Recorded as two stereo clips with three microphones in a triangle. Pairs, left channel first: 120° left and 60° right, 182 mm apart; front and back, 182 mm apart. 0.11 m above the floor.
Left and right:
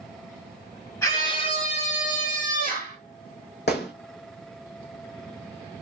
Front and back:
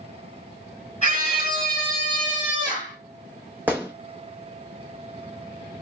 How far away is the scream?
About 1.5 m.